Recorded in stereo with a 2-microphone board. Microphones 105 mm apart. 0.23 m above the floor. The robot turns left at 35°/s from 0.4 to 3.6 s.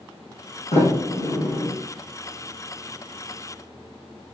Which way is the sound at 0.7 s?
75° left (ahead or behind).